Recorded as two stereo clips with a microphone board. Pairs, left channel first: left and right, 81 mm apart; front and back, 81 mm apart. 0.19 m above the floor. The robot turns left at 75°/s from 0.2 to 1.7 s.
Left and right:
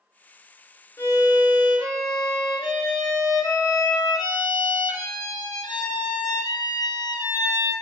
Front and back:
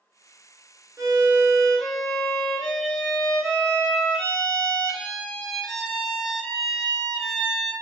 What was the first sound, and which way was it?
A violin, 135° left.